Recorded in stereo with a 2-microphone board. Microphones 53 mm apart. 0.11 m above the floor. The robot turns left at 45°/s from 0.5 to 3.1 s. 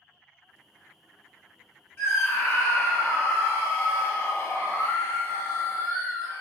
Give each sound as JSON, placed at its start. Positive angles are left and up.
{"t": 2.0, "sound": "a scream", "azimuth_deg": 100, "distance_m": 1.8}